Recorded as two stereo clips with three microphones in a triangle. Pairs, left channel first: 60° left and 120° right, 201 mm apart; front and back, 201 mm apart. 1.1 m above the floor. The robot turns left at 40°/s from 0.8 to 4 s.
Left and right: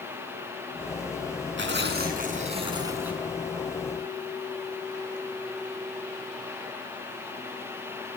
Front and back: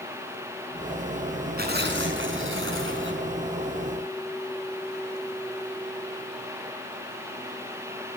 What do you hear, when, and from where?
1.6 s tearing paper: 140° right, 5 m; by 3.3 s 150° left, 5 m